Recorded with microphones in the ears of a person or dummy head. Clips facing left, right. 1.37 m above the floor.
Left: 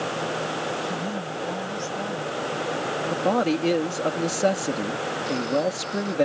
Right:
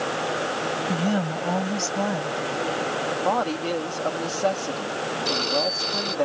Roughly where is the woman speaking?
Right.